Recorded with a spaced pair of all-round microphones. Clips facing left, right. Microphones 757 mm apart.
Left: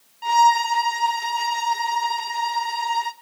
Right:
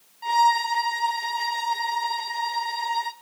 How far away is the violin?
About 0.7 m.